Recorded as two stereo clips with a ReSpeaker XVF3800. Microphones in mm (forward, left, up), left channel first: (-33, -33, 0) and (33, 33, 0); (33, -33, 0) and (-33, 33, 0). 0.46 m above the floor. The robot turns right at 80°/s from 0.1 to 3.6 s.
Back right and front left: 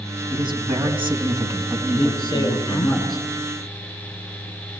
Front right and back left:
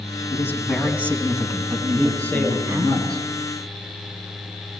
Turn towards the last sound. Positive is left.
turn(degrees=-5)